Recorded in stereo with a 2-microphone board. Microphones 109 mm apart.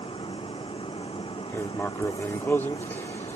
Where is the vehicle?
55° left (ahead or behind).